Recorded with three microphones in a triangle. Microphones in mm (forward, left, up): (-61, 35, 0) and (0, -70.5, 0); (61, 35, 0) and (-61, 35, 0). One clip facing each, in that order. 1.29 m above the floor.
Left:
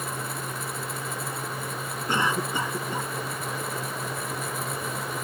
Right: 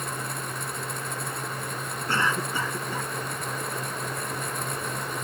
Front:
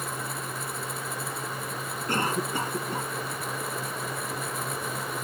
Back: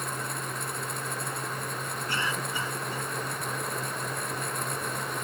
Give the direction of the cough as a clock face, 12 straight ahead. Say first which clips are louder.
Left 1 dB, front 6 dB; 10 o'clock.